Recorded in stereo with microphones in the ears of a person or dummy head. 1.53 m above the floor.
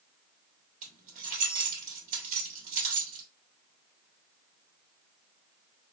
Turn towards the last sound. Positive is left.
turn(degrees=-35)  # may be behind; listen again after turning